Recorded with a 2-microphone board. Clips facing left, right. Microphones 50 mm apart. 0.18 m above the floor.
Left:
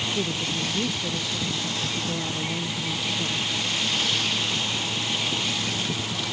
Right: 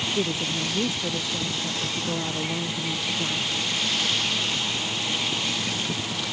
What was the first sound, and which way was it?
A woman speaking, 15° right (ahead or behind).